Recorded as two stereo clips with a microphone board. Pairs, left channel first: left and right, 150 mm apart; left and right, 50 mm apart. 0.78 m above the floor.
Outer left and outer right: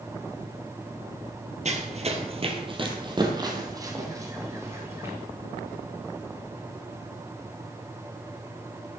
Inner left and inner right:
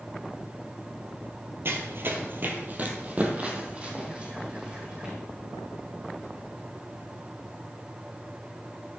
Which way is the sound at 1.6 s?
50° right (ahead or behind).